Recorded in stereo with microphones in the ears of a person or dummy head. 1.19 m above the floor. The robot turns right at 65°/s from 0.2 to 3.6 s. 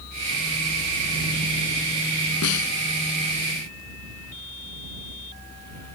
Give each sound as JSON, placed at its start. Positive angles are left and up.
{"t": 2.4, "sound": "a snare drum", "side_deg": 85}